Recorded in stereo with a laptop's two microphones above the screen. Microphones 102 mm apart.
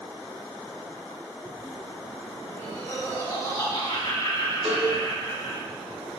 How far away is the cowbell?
About 3 m.